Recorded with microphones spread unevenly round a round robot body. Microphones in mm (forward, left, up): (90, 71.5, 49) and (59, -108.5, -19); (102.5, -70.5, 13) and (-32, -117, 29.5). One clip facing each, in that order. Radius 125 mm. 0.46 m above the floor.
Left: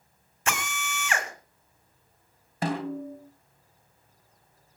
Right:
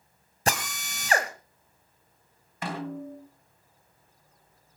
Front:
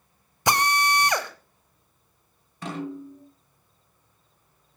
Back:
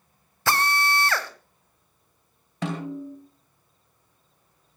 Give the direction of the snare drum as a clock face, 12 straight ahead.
7 o'clock.